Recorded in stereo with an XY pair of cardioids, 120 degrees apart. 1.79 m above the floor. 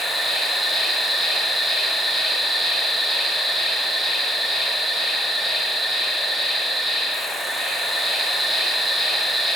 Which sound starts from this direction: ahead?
An insect, at 0.0 s.